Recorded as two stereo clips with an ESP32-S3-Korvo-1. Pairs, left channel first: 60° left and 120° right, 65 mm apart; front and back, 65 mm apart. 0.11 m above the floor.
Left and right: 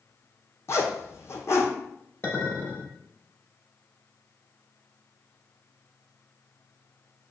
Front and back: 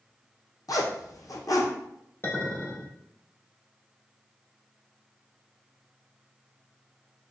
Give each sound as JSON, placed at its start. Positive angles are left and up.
{"t": 0.7, "sound": "a zipper", "azimuth_deg": 20, "distance_m": 0.8}
{"t": 2.2, "sound": "a clink", "azimuth_deg": 15, "distance_m": 1.4}